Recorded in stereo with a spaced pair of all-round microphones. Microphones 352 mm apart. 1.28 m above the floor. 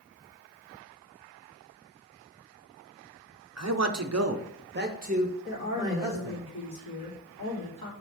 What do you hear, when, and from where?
3.6 s a man speaking: 45° right (ahead or behind), 0.8 m; by 6.4 s 5° right (ahead or behind), 1.6 m
5.5 s a woman speaking: 75° left (ahead or behind), 3 m